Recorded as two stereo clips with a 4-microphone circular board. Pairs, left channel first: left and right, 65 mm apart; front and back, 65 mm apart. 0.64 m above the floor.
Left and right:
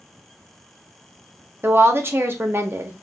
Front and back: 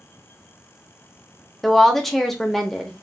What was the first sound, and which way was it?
A woman speaking, 85° right.